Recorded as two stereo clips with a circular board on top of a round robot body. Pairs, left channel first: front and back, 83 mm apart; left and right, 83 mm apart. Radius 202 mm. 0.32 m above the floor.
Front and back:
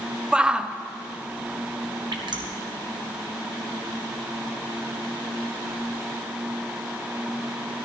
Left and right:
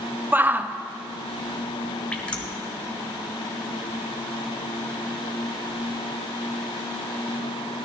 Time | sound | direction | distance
0.3 | a shout | 120° right | 0.8 m
2.1 | dripping | 165° left | 1.6 m